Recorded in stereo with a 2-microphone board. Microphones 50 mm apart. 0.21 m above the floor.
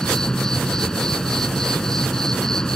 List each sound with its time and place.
0.0 s an insect: 10° left (ahead or behind)